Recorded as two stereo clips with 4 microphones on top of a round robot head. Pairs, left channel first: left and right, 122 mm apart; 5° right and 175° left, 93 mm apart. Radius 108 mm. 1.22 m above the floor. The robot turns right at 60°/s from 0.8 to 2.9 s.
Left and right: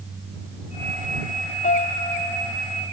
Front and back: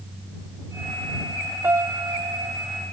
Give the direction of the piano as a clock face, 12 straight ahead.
8 o'clock.